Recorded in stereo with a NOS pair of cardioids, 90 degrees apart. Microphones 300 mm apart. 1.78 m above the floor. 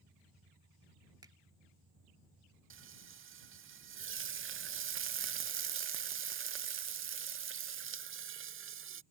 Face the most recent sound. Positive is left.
turn(degrees=-40)